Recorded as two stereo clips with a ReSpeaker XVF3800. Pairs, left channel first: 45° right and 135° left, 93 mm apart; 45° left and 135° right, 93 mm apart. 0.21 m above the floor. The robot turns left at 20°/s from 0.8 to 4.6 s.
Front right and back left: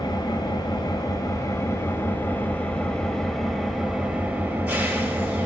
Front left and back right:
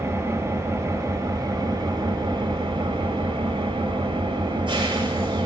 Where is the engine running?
75° right, 3.5 m; by 5.5 s 150° right, 3.5 m.